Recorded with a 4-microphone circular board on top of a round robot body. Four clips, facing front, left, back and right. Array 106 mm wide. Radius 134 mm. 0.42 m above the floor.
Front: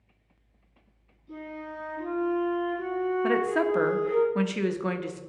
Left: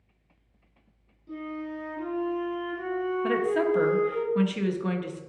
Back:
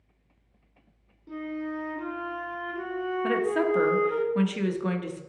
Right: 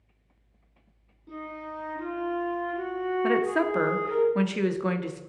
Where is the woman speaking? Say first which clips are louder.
Right 1 dB, back 1 dB; 60° right, 0.9 m.